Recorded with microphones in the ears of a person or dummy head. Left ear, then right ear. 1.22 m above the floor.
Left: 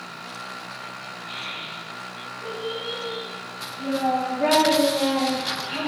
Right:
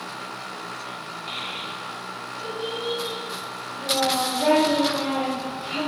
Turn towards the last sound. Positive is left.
turn(degrees=15)  # may be behind; listen again after turning